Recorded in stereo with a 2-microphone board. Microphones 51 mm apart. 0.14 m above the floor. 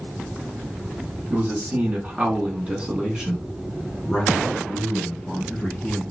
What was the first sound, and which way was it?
A man speaking, 35° right (ahead or behind).